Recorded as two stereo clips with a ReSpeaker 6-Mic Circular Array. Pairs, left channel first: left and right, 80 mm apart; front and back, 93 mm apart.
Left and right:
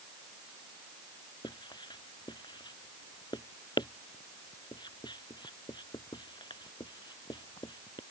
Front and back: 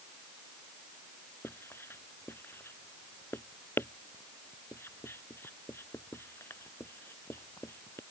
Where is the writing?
65° left.